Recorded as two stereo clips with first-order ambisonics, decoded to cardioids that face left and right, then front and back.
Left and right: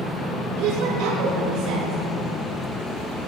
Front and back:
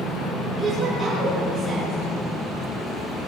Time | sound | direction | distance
0.6 | a woman speaking | 95° right | 6.5 m